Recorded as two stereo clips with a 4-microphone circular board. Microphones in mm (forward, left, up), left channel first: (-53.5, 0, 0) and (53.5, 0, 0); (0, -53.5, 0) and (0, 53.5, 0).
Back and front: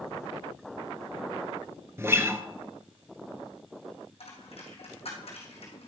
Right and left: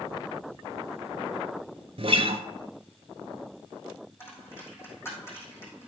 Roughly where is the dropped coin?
Behind right.